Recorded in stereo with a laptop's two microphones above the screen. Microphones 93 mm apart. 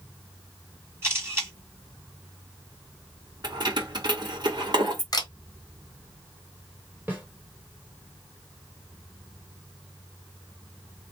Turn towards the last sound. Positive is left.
turn(degrees=-20)  # may be behind; listen again after turning